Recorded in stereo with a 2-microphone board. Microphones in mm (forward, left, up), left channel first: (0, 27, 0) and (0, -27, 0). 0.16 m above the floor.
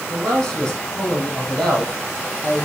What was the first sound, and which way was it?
A man speaking, 5° left (ahead or behind).